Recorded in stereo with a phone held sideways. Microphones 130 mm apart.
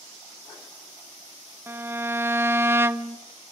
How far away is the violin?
About 0.7 m.